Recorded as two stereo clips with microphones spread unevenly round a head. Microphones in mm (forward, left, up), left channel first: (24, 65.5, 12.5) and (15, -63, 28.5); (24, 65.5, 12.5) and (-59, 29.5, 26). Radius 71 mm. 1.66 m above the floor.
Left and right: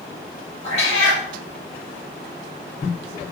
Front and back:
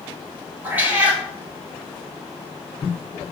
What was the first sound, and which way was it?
A cat meowing, 135° left.